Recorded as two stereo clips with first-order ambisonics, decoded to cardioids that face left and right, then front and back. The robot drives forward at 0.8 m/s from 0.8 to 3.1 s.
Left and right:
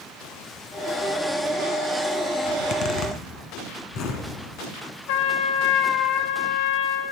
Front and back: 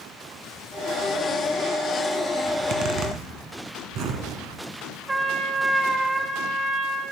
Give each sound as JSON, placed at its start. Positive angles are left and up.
{"t": 2.5, "sound": "a zipper", "azimuth_deg": 120, "distance_m": 1.1}
{"t": 5.1, "sound": "a trumpet", "azimuth_deg": 95, "distance_m": 0.6}